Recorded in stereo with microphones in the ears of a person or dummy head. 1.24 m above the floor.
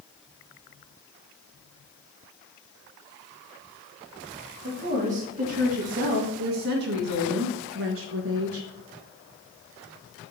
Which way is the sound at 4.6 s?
40° right (ahead or behind).